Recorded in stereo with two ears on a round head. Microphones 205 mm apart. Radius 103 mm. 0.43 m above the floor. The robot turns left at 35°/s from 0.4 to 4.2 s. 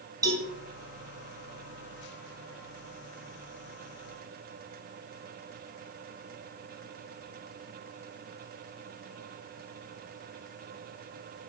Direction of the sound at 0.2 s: 15° right (ahead or behind).